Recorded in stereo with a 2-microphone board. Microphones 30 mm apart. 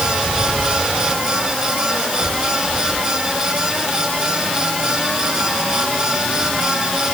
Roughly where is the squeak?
I don't hear a squeak.